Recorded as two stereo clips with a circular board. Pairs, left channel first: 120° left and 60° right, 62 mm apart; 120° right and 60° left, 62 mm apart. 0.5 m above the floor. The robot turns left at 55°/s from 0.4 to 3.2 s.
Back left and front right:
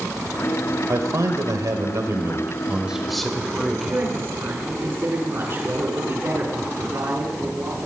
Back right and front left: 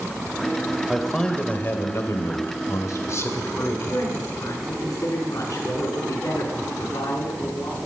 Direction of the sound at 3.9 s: 105° right.